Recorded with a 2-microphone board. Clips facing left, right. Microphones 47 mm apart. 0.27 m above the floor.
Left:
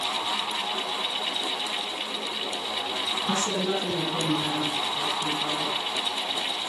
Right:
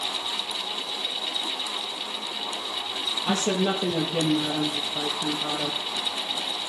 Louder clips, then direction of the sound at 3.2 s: Right 4 dB; 65° right (ahead or behind).